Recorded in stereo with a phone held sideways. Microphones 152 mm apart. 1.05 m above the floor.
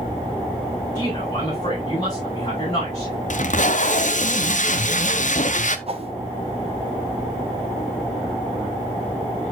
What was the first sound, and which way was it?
A man speaking, 30° left (ahead or behind).